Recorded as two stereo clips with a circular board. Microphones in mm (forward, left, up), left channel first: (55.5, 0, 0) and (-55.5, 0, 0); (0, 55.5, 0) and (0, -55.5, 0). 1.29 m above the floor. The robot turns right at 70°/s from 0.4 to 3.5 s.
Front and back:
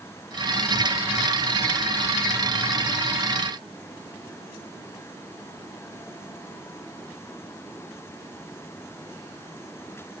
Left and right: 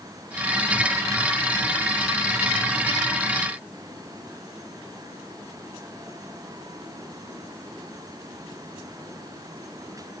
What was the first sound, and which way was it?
Only background noise.